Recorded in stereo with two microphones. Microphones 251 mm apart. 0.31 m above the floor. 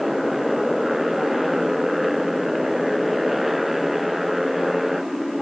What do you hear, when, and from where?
0.0 s a motorcycle: centre (ahead or behind)